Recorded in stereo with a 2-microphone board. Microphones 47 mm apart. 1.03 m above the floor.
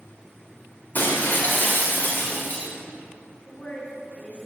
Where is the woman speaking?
30° left (ahead or behind), 1.4 m.